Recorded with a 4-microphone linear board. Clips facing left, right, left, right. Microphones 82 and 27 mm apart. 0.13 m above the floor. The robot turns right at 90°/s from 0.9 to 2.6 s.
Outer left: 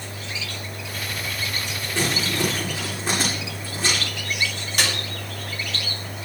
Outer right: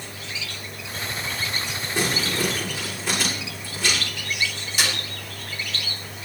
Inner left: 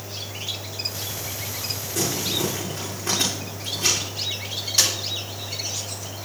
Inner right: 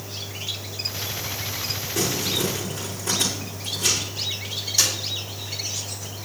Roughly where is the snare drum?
Left.